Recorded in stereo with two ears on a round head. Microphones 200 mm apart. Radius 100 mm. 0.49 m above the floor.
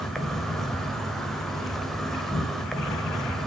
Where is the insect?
Centre (ahead or behind), 1.2 m.